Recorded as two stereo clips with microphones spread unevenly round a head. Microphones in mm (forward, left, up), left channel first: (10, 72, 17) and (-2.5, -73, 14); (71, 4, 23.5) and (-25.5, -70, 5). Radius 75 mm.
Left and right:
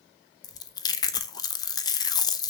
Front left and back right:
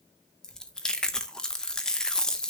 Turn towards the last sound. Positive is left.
turn(degrees=95)